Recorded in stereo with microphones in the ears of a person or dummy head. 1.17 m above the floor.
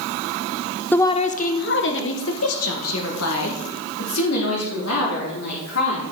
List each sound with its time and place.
0.9 s a woman speaking: 10° left (ahead or behind), 0.6 m; by 6.0 s 80° left, 3.5 m